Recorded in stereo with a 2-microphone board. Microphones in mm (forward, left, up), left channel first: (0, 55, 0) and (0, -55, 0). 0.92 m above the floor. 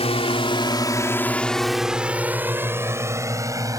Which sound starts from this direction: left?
A drone, at 0.0 s.